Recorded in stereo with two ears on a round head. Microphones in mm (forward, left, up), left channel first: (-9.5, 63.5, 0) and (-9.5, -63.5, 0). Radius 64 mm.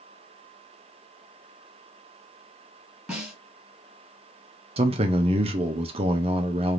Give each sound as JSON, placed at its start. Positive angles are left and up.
{"t": 3.1, "sound": "a snare drum", "side_deg": -10, "distance_m": 2.0}
{"t": 4.8, "sound": "a man speaking", "side_deg": -40, "distance_m": 0.7}